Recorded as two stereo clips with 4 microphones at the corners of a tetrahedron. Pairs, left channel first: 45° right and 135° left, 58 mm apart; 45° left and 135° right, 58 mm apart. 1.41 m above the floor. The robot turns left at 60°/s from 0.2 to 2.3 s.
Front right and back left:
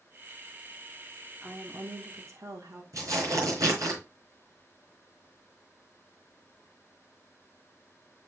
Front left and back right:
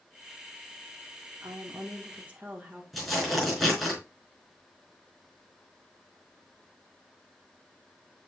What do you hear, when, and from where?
1.4 s a woman speaking: 150° right, 1.6 m; by 2.8 s 160° left, 1.6 m
2.9 s tearing paper: 135° left, 4.5 m